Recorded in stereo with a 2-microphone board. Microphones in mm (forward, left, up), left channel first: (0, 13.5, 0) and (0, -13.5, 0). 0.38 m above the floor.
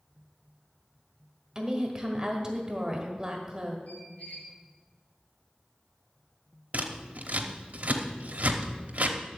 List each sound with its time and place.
1.6 s a woman speaking: 20° right (ahead or behind), 1.4 m
3.9 s a squeak: 70° left (ahead or behind), 2 m
6.7 s scissors: 60° right (ahead or behind), 0.9 m